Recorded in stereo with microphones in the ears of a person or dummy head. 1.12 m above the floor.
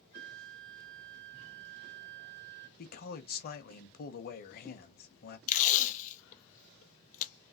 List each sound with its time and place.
0.1 s a flute: 50° right (ahead or behind), 0.6 m
2.8 s a man speaking: 50° left (ahead or behind), 0.7 m
5.5 s tape being pulled: 40° left (ahead or behind), 0.6 m